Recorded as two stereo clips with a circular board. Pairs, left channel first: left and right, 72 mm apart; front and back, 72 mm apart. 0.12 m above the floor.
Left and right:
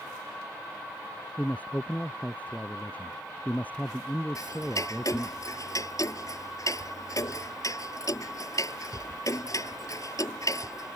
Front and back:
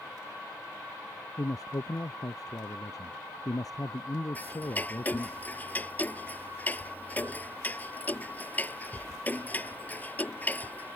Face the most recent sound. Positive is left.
turn(degrees=65)